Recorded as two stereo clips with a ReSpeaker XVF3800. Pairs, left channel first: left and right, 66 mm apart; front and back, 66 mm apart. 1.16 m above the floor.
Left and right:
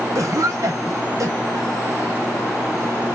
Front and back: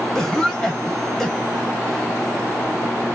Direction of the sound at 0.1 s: 80° right.